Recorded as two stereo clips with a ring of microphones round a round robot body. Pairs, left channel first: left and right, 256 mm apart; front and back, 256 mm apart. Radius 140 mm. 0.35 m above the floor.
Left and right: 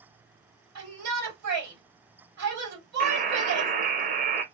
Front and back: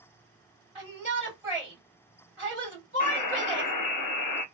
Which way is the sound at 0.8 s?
95° right.